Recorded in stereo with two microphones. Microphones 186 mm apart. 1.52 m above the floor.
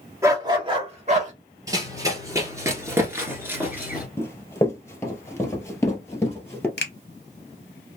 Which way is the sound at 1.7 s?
20° right (ahead or behind).